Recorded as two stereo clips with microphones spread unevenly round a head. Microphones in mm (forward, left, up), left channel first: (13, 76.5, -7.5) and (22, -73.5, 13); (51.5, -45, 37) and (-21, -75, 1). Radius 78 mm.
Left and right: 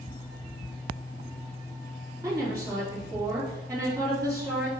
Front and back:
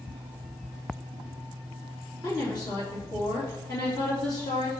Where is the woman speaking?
15° right, 3 m.